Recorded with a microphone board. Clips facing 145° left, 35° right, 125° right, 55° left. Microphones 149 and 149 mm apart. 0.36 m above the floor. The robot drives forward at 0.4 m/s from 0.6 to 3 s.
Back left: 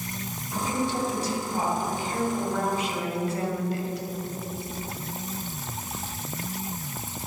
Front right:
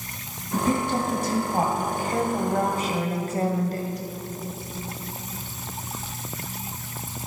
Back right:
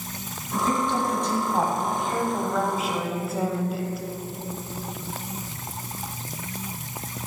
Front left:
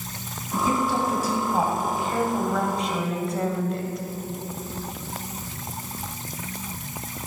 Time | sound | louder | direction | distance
0.5 | a woman speaking | front right 4 dB, front left 1 dB | 25° right | 2.5 m